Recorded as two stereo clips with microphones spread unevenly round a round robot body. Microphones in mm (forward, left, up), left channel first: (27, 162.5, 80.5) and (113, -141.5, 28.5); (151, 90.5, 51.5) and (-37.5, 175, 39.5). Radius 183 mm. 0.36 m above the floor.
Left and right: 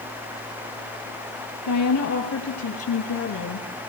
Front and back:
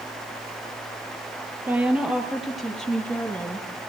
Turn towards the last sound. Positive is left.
turn(degrees=55)